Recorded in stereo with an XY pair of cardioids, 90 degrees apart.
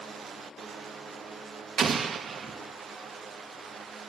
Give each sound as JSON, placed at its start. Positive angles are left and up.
{"t": 1.8, "sound": "an explosion", "azimuth_deg": -50, "distance_m": 1.5}